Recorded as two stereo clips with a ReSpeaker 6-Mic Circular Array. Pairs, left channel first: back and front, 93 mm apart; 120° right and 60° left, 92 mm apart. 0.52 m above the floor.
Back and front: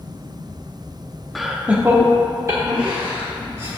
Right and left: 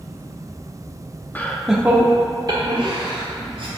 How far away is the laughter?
About 0.8 m.